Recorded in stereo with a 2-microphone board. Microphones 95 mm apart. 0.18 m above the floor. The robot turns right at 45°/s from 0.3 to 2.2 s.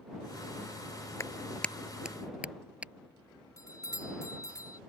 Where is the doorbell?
35° left (ahead or behind).